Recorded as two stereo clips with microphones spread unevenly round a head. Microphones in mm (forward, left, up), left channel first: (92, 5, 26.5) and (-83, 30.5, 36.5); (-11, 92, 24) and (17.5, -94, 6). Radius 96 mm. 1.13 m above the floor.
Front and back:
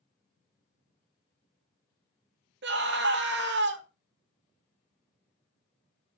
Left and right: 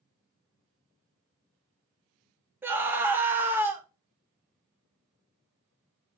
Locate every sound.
2.6 s a scream: 160° right, 2 m